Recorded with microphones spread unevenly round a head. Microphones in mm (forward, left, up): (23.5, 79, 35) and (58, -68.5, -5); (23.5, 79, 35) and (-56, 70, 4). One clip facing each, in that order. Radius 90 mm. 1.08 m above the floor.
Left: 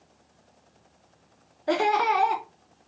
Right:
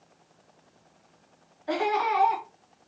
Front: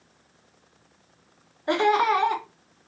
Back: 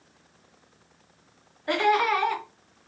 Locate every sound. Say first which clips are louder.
1.7 s laughter: left 3 dB, front 2 dB; 80° left, 0.7 m